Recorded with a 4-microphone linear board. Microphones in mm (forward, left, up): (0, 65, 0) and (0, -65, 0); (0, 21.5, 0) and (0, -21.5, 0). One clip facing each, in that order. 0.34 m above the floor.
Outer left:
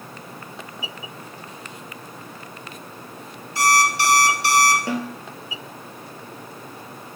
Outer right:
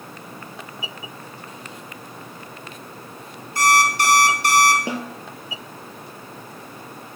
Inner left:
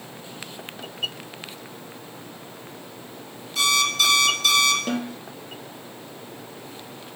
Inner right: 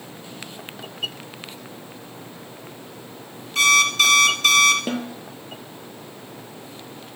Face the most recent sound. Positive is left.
turn(degrees=-15)  # may be behind; listen again after turning